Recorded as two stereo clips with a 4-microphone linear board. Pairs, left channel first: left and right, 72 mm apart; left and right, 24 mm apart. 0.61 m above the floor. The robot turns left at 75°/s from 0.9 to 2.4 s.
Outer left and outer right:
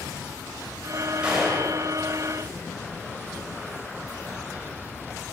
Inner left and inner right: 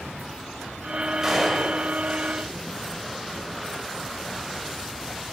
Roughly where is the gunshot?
Behind.